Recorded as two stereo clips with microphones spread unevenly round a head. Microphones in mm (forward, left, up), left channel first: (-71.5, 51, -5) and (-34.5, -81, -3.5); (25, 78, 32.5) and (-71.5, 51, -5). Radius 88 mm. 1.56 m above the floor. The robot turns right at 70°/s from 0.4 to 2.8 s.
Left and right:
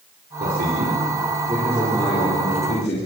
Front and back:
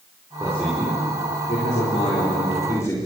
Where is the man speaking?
90° right, 5 m; by 3.0 s 80° left, 5 m.